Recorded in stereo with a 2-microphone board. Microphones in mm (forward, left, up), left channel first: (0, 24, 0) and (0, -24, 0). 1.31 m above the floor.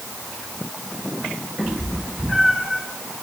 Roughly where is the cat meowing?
Right.